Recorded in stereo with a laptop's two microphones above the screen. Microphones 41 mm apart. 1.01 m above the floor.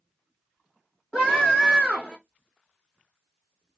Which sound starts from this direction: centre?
A scream, at 1.1 s.